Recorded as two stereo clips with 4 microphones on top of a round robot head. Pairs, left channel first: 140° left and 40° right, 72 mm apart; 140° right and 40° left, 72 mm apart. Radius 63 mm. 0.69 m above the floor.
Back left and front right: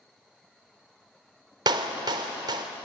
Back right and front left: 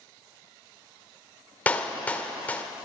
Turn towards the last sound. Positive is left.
turn(degrees=-70)